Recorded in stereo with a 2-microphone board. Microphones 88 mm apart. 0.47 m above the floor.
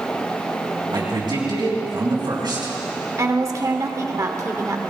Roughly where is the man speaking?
Right.